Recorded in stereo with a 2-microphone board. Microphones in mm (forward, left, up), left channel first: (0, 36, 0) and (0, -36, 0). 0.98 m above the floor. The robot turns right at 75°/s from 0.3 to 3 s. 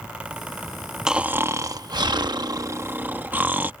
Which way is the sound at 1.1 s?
170° right.